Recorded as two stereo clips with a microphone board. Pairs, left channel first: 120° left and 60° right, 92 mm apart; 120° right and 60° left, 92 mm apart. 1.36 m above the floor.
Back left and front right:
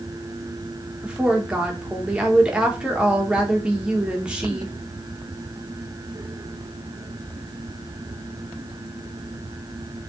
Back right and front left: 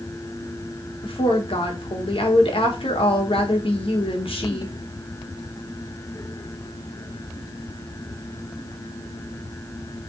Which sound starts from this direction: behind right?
A woman speaking, at 1.0 s.